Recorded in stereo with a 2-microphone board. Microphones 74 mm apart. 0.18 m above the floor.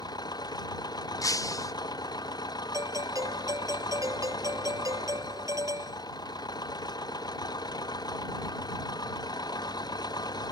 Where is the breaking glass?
55° left (ahead or behind).